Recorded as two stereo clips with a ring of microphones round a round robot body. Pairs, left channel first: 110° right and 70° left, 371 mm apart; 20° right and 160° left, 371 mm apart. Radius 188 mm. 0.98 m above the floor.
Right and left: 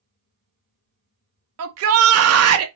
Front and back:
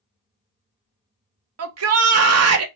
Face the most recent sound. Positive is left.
turn(degrees=115)